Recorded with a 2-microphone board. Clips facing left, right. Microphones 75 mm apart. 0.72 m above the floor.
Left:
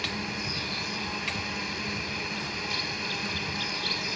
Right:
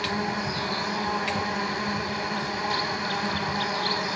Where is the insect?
50° right (ahead or behind).